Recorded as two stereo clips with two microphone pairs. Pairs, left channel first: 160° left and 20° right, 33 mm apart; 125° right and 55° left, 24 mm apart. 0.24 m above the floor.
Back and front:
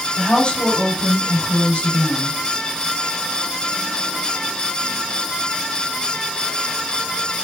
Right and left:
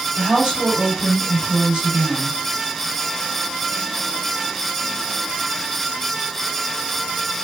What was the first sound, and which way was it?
A woman speaking, 105° left.